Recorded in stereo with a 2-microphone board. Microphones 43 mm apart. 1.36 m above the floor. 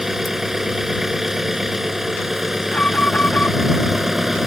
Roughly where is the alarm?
Left.